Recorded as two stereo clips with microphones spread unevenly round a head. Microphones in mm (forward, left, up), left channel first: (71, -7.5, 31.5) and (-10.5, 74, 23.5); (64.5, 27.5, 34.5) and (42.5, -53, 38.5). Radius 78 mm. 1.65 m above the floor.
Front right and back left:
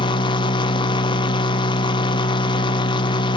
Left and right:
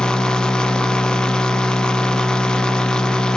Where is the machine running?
5° right, 1.0 m.